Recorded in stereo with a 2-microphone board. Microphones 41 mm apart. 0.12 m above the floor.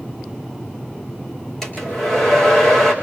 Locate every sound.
1.6 s a hair dryer: 10° left (ahead or behind), 4.5 m